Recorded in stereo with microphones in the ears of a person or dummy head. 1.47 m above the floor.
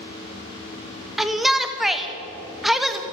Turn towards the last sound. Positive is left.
turn(degrees=0)  # may be behind; listen again after turning